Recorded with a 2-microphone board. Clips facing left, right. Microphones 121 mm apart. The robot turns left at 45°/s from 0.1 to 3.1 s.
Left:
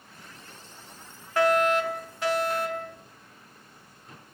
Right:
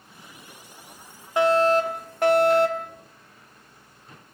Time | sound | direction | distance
1.4 | a fire alarm | 20° right | 2.5 m